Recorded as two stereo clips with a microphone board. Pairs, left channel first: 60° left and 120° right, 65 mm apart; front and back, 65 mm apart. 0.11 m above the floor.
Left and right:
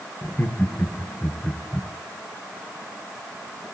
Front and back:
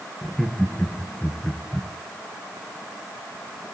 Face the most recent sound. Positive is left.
turn(degrees=30)